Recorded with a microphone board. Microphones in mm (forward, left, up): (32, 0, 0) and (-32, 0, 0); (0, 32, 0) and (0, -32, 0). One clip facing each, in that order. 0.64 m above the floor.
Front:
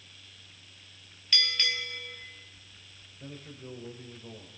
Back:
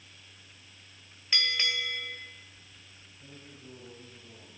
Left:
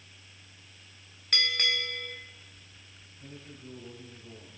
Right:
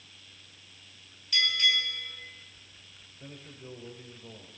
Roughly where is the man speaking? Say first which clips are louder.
Front 6 dB, right 1 dB; ahead right.